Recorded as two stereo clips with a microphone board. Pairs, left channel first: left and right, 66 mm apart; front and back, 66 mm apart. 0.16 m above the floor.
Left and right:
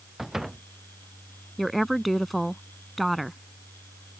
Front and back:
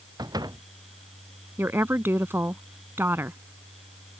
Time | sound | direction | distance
0.2 | a door slam | 175° right | ?
1.6 | a woman speaking | straight behind | ?